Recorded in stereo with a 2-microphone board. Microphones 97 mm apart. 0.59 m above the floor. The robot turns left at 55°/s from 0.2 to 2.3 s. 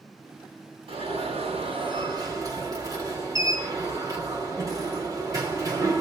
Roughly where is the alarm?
Ahead right.